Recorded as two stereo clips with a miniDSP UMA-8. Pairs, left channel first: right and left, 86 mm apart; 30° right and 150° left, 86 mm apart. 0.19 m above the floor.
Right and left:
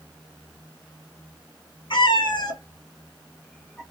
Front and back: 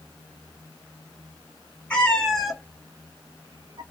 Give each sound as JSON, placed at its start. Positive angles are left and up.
{"t": 1.9, "sound": "a cat meowing", "azimuth_deg": -105, "distance_m": 1.6}